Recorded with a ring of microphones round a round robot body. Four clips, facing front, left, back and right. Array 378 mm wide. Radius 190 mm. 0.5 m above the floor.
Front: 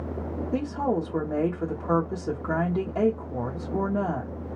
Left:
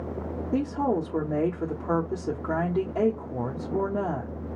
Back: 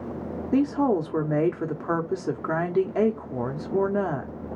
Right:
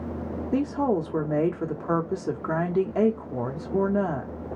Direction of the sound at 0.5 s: 155° right.